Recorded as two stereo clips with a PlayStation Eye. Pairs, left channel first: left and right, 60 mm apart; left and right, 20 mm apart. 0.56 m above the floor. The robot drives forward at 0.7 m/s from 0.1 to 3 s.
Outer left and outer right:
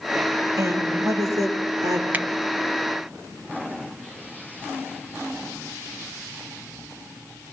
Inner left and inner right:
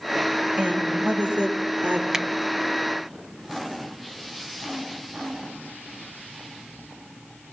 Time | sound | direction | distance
0.6 | a woman speaking | 70° right (ahead or behind) | 8.5 m
2.1 | a finger snap | 30° right (ahead or behind) | 0.6 m